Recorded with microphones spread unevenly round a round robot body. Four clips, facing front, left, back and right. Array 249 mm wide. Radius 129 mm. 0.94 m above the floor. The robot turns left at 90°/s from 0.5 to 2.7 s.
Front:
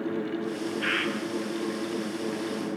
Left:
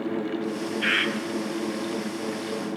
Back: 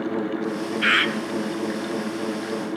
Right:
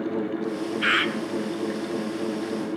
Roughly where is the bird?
Behind right.